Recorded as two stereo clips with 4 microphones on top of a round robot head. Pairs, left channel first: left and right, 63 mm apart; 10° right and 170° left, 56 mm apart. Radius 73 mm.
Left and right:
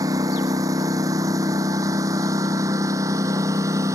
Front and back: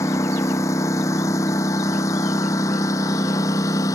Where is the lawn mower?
50° right; by 3.9 s 45° right.